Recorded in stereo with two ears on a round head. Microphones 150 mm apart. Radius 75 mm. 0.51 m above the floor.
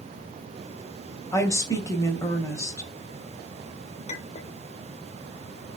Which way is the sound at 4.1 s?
40° left (ahead or behind).